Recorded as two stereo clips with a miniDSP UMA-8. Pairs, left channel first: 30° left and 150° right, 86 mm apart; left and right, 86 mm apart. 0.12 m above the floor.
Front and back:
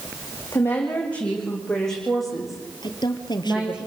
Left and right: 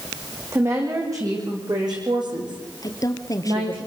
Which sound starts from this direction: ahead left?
A woman speaking, at 2.8 s.